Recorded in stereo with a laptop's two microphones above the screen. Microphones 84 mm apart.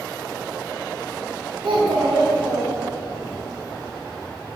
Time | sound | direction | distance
1.6 | a child speaking | 70° right (ahead or behind) | 0.8 m